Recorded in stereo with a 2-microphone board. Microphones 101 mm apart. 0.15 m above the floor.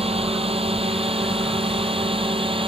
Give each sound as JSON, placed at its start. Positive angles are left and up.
{"t": 0.0, "sound": "a drone", "side_deg": -70}